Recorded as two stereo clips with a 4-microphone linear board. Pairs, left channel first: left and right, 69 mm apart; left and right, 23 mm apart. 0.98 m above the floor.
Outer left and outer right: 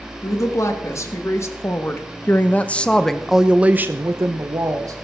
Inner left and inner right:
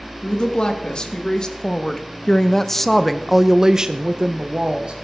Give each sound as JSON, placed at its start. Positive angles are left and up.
{"t": 0.2, "sound": "a woman speaking", "side_deg": 50, "distance_m": 1.8}